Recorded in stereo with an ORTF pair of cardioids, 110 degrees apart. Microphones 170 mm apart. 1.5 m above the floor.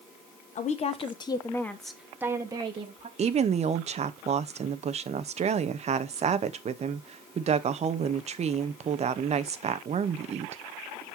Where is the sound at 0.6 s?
45° left, 1.7 m; by 3.1 s 35° right, 1.8 m.